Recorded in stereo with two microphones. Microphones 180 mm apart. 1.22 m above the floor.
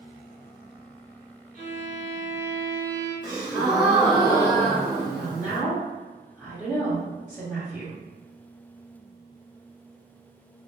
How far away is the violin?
About 1.6 m.